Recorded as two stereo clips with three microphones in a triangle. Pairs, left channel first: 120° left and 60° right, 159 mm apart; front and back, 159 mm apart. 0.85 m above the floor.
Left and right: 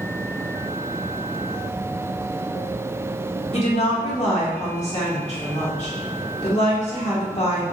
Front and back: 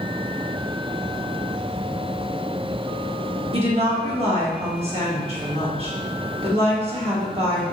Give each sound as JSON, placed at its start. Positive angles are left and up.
{"t": 3.5, "sound": "a woman speaking", "azimuth_deg": 145, "distance_m": 1.2}